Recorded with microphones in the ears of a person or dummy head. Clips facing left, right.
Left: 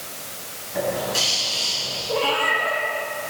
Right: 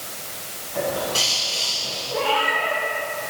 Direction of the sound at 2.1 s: 75° left (ahead or behind).